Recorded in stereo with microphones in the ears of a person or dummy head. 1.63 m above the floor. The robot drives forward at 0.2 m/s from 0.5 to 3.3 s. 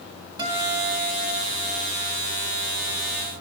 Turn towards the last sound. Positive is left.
turn(degrees=-15)  # may be behind; listen again after turning